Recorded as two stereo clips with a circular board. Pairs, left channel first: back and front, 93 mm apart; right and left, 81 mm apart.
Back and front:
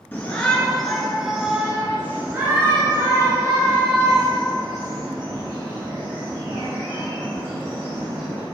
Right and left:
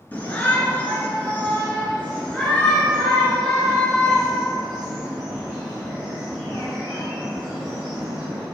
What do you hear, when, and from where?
0.1 s a shout: 130° right, 1.9 m; by 8.4 s 5° left, 5 m